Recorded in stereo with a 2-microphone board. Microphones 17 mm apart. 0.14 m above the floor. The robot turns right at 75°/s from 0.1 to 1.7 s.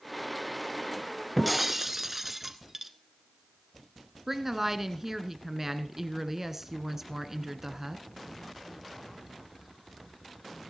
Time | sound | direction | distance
1.4 | breaking glass | centre (ahead or behind) | 1.1 m
4.3 | a woman speaking | 25° right (ahead or behind) | 1.5 m